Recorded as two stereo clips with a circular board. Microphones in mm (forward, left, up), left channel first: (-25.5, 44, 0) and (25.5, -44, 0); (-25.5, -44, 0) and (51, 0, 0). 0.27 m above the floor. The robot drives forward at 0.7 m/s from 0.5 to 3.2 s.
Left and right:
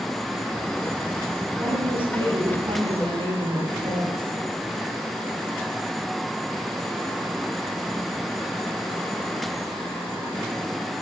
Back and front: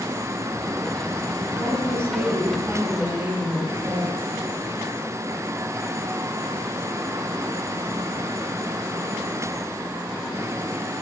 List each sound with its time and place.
1.6 s a woman speaking: 30° right, 7 m; by 4.3 s 35° right, 6 m